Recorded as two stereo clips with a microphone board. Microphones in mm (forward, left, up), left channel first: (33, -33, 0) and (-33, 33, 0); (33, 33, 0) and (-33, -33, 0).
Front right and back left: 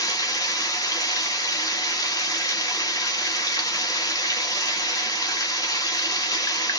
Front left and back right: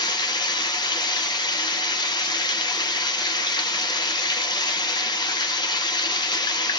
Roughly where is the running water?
Ahead.